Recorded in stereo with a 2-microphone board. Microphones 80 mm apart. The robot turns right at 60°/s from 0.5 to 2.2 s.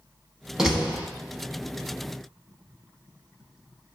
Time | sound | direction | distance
0.6 | a door slam | 5° right (ahead or behind) | 0.9 m